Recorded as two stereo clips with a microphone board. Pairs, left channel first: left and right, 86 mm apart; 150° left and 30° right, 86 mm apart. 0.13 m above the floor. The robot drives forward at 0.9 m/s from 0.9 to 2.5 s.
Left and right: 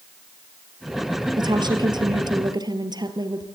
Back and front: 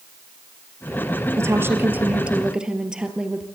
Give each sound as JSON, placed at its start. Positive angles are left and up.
{"t": 1.4, "sound": "a woman speaking", "azimuth_deg": -80, "distance_m": 2.0}